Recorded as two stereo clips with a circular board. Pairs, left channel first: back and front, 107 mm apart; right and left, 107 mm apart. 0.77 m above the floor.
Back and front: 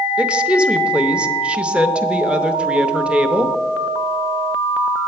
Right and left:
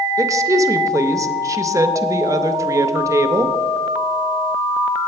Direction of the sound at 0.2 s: 70° left.